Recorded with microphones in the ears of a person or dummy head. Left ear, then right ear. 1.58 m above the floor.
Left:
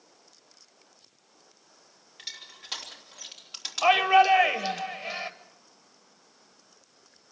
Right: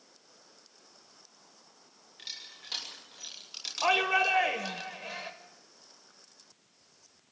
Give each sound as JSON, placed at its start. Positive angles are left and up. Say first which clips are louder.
{"t": 2.2, "sound": "crushing", "louder": "left 2 dB", "side_deg": 20, "distance_m": 3.0}
{"t": 3.8, "sound": "a shout", "louder": "left 6 dB", "side_deg": 10, "distance_m": 1.0}